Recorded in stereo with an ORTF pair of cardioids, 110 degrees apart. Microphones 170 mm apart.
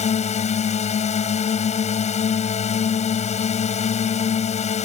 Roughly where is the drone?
Ahead left.